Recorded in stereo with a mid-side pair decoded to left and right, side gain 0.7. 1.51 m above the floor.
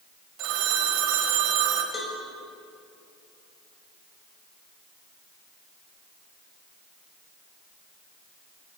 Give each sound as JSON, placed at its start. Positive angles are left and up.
{"t": 0.4, "sound": "a phone ringing", "azimuth_deg": -60, "distance_m": 5.5}
{"t": 1.9, "sound": "a cowbell", "azimuth_deg": 20, "distance_m": 6.5}